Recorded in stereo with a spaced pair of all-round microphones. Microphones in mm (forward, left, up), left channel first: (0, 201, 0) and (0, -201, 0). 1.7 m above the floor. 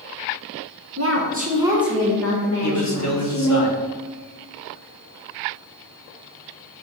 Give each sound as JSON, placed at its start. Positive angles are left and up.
{"t": 1.0, "sound": "a woman speaking", "side_deg": -40, "distance_m": 1.3}
{"t": 2.6, "sound": "a man speaking", "side_deg": 40, "distance_m": 1.3}